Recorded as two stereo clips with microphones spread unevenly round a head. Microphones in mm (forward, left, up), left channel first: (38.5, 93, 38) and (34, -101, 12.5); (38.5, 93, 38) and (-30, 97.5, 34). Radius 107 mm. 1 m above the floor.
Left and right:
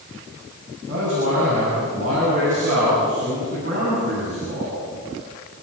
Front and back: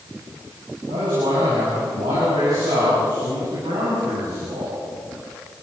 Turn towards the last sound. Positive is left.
turn(degrees=-150)